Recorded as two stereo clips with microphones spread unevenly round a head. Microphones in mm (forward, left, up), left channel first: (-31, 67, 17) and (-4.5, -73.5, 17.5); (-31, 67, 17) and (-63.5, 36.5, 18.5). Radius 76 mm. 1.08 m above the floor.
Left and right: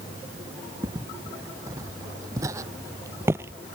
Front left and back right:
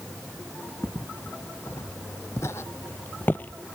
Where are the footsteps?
10° right.